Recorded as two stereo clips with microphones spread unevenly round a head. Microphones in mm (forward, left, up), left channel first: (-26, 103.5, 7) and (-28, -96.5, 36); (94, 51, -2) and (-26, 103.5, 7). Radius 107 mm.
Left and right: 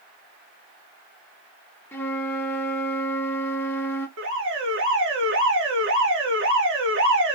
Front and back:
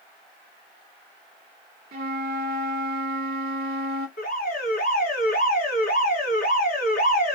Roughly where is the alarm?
Ahead right.